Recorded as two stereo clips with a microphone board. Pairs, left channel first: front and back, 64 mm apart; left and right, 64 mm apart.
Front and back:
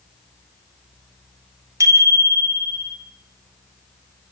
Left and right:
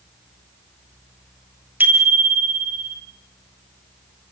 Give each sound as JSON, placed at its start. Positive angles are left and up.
{"t": 1.8, "sound": "a bicycle bell", "azimuth_deg": -150, "distance_m": 3.0}